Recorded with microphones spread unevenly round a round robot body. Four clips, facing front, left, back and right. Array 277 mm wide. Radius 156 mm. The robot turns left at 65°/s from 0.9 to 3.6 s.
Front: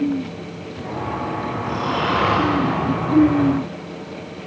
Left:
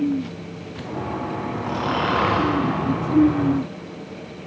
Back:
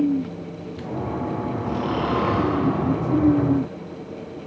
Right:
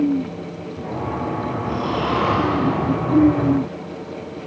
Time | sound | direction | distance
1.6 | snoring | 85° left | 3 m